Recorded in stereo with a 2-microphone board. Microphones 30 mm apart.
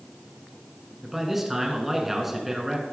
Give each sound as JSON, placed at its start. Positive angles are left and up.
{"t": 1.0, "sound": "a man speaking", "side_deg": -10, "distance_m": 1.3}